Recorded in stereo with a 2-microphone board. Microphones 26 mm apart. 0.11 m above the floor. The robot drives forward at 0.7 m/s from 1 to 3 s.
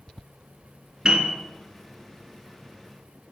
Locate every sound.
1.1 s a piano: 25° right (ahead or behind), 1.6 m; by 1.4 s 20° right (ahead or behind), 1.8 m